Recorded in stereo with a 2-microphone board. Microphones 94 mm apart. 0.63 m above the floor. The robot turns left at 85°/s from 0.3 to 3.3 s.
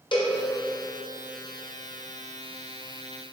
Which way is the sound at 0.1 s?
55° left (ahead or behind).